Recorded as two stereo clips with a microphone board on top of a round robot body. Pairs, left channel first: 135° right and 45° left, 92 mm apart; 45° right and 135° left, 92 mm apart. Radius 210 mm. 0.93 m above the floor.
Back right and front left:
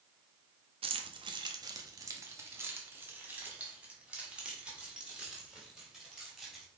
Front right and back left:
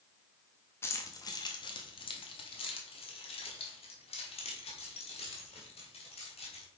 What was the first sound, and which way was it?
Keys jangling, 20° left.